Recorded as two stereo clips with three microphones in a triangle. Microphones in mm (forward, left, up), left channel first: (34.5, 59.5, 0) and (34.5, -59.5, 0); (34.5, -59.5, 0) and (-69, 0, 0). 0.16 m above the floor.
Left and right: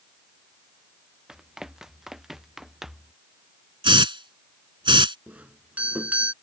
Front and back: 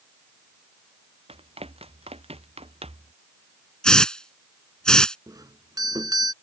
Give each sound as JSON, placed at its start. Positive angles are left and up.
{"t": 1.3, "sound": "running footsteps", "azimuth_deg": -175}
{"t": 3.8, "sound": "a hiss", "azimuth_deg": -110}
{"t": 5.3, "sound": "a doorbell", "azimuth_deg": -165}